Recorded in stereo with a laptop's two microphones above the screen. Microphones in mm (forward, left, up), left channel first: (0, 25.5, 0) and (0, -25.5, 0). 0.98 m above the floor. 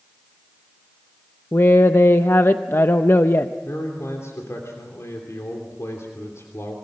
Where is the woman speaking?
55° left (ahead or behind), 0.7 m.